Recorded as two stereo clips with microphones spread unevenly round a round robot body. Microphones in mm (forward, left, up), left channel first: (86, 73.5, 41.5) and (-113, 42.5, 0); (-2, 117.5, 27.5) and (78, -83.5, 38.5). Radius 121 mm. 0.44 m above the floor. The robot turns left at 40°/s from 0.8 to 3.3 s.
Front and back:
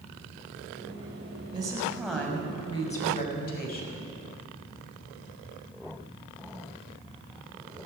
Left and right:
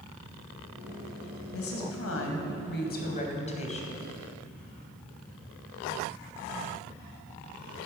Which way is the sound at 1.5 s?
125° left.